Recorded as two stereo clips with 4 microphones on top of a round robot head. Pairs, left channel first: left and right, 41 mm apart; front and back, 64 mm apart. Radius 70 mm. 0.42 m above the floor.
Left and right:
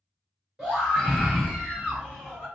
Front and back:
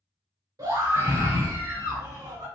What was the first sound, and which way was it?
A scream, 170° right.